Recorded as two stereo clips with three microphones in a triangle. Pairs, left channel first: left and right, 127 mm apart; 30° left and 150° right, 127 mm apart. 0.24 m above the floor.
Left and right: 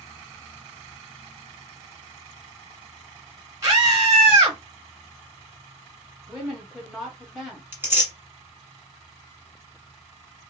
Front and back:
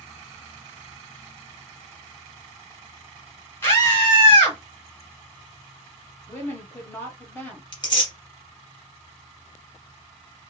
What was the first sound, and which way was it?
A scream, 35° right.